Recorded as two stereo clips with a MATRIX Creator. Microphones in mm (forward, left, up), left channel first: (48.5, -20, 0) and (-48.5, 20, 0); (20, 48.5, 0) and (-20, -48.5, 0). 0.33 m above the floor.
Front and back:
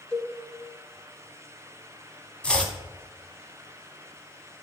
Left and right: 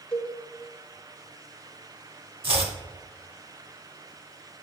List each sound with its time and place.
0.1 s a cowbell: 10° right, 1.4 m
2.4 s chopping: 100° right, 1.0 m